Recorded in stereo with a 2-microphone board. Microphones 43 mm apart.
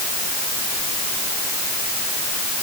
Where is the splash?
No splash in this recording.